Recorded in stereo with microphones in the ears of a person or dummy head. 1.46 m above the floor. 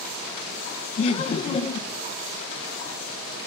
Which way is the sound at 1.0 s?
35° left (ahead or behind).